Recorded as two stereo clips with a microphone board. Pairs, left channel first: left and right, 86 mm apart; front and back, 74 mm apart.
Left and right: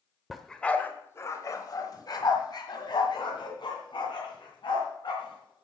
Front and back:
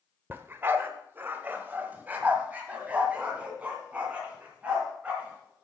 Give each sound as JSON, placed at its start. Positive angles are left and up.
{"t": 0.3, "sound": "a dog barking", "azimuth_deg": -175, "distance_m": 0.8}